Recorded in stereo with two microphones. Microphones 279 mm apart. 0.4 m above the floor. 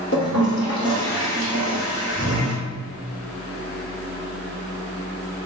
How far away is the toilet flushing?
About 1.2 m.